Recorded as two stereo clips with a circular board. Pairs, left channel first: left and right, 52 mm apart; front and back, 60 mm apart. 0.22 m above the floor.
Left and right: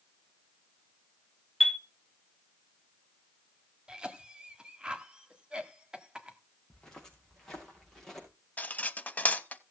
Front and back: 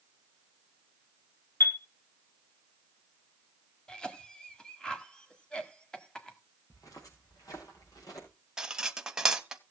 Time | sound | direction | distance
1.6 | a chime | 5° left | 1.0 m
3.9 | a cough | 50° right | 1.4 m
6.7 | footsteps | 15° left | 5 m
8.6 | cutlery clinking | 110° left | 0.7 m